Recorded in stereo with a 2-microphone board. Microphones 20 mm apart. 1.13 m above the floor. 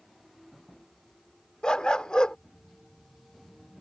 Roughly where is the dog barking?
Left.